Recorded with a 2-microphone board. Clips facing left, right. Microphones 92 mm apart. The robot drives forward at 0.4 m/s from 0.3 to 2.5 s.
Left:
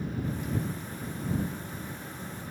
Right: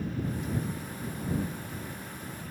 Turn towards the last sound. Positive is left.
No sound to turn to.